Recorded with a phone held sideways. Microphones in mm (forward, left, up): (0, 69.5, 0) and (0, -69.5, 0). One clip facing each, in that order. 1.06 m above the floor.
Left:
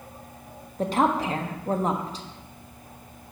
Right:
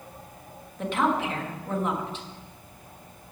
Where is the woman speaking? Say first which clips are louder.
Left 2 dB; 35° left (ahead or behind), 1.2 m.